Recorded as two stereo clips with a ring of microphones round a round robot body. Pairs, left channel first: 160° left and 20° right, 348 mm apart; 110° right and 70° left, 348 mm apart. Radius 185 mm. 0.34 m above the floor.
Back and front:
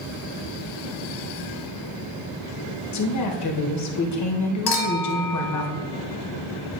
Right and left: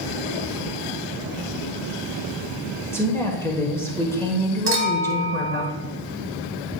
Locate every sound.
2.9 s a woman speaking: 165° left, 1.4 m
4.7 s a clink: 130° left, 1.4 m